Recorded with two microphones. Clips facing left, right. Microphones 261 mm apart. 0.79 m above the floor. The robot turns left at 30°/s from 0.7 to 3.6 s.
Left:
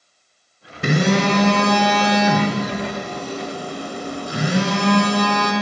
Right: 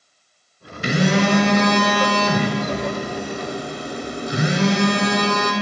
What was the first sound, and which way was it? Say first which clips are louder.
A phone buzzing: even; 60° left.